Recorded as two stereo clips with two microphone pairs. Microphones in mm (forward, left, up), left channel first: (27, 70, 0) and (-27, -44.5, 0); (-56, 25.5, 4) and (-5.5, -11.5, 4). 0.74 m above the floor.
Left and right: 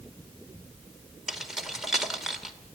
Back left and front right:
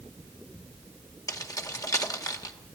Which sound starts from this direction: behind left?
Keys jangling, at 1.3 s.